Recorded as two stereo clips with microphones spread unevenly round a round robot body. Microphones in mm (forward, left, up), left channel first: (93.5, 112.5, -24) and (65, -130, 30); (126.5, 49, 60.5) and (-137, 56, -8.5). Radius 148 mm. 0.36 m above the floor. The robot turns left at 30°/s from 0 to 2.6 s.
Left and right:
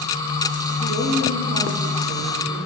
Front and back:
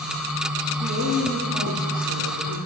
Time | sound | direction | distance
0.8 | a woman speaking | 175° right | 6.5 m